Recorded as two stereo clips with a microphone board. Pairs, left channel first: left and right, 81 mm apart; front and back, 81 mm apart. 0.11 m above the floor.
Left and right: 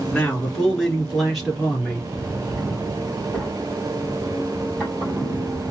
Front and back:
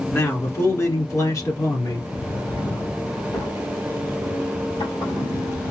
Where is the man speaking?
25° left, 1.4 m; by 2.0 s 5° right, 2 m.